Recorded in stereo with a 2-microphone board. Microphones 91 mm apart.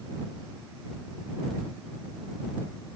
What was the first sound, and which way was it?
Only background noise.